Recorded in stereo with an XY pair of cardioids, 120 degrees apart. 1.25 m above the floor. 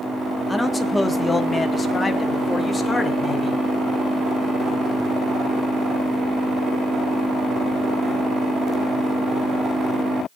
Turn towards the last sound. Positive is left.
turn(degrees=30)